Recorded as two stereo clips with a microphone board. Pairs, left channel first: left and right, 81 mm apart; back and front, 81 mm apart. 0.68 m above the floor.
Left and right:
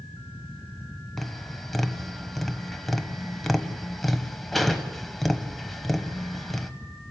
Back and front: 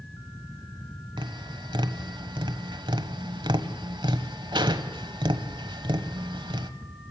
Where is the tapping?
Straight ahead, 1.2 m.